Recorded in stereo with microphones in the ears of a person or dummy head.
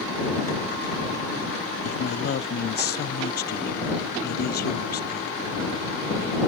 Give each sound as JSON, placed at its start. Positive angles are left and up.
{"t": 1.8, "sound": "a man speaking", "side_deg": 50}